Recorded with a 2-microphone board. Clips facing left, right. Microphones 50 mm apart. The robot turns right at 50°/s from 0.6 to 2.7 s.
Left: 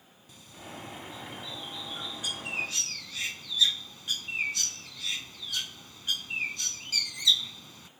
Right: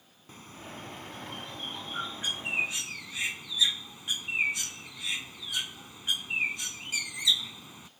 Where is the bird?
125° right; by 7.9 s 20° right.